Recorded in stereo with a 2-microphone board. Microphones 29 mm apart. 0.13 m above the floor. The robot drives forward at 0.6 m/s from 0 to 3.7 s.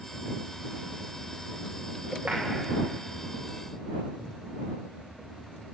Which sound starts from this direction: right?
A clap, at 2.3 s.